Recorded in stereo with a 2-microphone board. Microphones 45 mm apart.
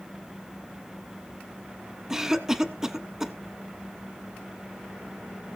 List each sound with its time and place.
2.1 s a cough: 10° right (ahead or behind), 1.1 m